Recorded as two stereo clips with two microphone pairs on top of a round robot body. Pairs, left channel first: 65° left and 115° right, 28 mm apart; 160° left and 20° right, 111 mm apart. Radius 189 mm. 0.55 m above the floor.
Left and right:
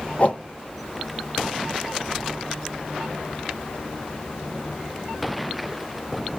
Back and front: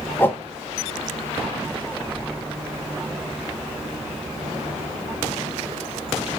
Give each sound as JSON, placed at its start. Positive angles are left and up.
{"t": 0.2, "sound": "a whoosh", "azimuth_deg": 95, "distance_m": 0.9}